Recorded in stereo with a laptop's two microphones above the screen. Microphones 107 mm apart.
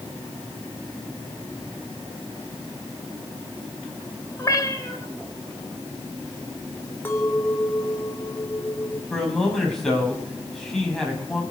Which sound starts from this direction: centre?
A man speaking, at 9.1 s.